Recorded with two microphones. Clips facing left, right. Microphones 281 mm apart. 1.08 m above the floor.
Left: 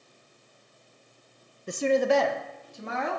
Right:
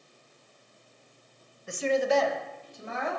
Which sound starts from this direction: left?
A woman speaking, at 1.7 s.